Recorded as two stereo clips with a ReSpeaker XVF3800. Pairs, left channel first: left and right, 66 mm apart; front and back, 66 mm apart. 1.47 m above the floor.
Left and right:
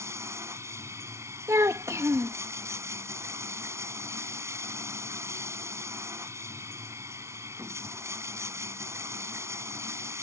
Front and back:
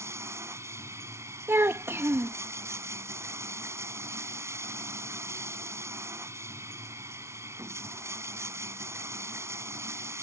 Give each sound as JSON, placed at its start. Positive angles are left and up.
{"t": 0.0, "sound": "running water", "azimuth_deg": -135}
{"t": 1.5, "sound": "a child speaking", "azimuth_deg": -130}